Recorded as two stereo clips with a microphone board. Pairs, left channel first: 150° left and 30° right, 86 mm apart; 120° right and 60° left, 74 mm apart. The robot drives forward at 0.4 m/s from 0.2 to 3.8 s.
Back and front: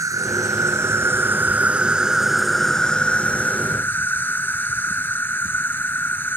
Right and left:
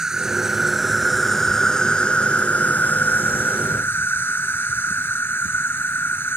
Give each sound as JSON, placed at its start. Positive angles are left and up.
{"t": 0.0, "sound": "an insect", "azimuth_deg": -20}